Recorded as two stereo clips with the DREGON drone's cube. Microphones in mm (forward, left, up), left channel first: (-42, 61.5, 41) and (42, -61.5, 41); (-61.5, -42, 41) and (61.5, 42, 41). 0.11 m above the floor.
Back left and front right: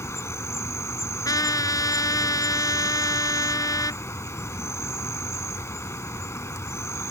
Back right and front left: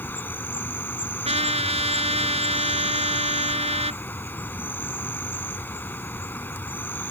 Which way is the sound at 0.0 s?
160° left.